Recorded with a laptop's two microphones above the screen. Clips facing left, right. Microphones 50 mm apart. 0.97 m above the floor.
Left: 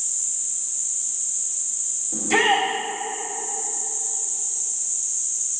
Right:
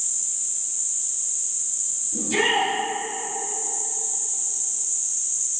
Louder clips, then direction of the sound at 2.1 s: Left 3 dB; 70° left (ahead or behind).